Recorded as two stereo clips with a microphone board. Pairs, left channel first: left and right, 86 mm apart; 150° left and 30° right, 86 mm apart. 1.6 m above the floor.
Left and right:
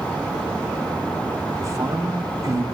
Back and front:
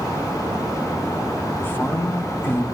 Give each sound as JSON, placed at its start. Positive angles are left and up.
{"t": 1.6, "sound": "a woman speaking", "azimuth_deg": -145, "distance_m": 0.9}